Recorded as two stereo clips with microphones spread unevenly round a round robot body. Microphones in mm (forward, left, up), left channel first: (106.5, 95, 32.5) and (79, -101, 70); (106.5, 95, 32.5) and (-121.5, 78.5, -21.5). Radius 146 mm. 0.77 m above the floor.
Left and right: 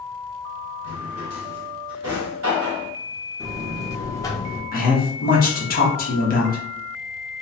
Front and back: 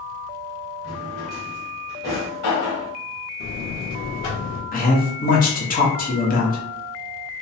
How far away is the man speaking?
About 1.2 m.